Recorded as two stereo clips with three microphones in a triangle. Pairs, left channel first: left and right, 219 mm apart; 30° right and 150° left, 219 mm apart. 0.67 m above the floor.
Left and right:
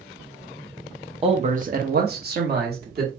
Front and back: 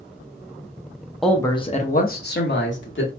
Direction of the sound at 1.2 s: 120° right.